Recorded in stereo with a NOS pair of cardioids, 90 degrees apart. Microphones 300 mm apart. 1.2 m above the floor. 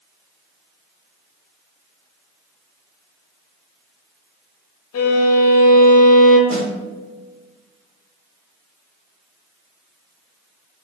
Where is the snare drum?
45° right, 2.0 m.